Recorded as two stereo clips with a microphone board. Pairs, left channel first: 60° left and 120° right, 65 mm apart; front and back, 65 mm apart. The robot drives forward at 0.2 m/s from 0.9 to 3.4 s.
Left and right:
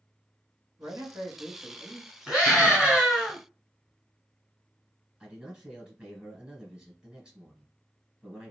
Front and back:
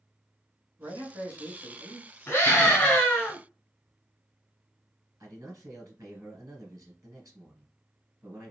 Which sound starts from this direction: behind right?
A man speaking, at 0.8 s.